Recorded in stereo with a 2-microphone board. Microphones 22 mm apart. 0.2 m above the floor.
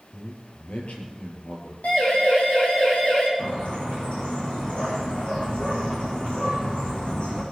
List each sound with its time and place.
0.1 s a man speaking: 65° left (ahead or behind), 5 m
1.8 s a siren: 70° left (ahead or behind), 7 m; by 3.3 s 60° left (ahead or behind), 6.5 m
3.4 s a bird: 55° left (ahead or behind), 9 m